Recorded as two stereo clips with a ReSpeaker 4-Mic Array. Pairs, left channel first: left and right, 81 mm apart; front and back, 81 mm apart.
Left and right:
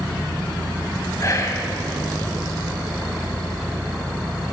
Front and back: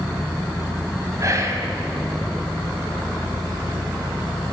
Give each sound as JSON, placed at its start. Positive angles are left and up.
{"t": 1.2, "sound": "whispering", "azimuth_deg": 135, "distance_m": 3.0}